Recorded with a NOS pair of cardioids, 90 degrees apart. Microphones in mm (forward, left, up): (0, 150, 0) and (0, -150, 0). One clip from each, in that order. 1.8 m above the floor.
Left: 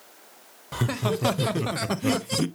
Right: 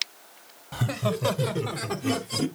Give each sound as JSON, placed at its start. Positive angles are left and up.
{"t": 0.7, "sound": "laughter", "azimuth_deg": 25, "distance_m": 1.4}